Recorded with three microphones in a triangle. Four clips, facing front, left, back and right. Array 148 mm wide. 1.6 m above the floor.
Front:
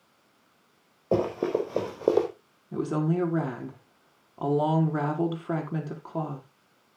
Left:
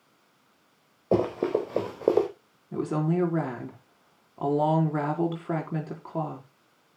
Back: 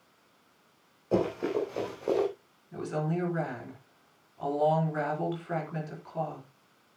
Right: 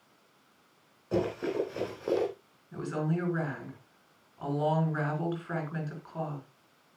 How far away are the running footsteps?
About 5 m.